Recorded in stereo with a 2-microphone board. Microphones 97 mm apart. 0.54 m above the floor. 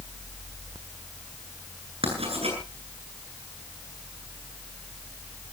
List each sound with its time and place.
2.0 s writing: 80° right, 9 m